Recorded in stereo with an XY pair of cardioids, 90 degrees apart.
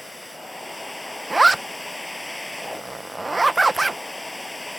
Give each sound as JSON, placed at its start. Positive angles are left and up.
{"t": 0.0, "sound": "a machine running", "azimuth_deg": 10}
{"t": 1.3, "sound": "a zipper", "azimuth_deg": -20}